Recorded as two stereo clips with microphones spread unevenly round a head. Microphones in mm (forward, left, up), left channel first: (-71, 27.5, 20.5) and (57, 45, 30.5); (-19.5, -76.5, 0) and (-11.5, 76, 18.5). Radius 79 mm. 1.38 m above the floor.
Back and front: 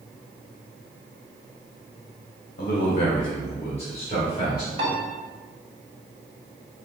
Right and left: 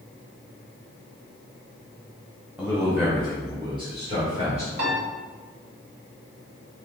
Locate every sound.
2.6 s a man speaking: 175° right, 0.9 m; by 4.7 s 135° left, 1.8 m
4.8 s a piano: 50° left, 1.3 m